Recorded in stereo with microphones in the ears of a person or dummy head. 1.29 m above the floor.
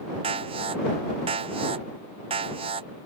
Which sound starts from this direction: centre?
An alarm, at 0.2 s.